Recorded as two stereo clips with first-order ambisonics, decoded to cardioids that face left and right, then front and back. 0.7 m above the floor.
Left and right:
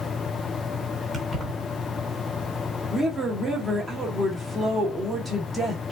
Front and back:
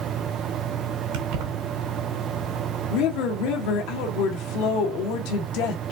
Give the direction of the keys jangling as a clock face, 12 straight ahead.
6 o'clock.